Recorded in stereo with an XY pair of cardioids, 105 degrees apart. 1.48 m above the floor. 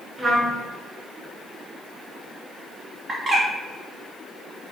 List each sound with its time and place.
0.2 s a trumpet: 40° right, 1.0 m
3.1 s a bird: 30° right, 0.9 m